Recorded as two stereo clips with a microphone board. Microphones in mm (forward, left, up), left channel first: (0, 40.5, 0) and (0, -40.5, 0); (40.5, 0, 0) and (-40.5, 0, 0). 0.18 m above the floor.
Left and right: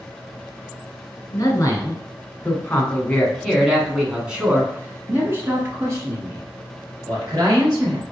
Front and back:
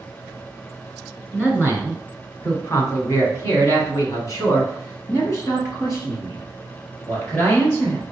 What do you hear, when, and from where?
1.3 s a man speaking: 55° left, 1.8 m; by 8.0 s 55° right, 3 m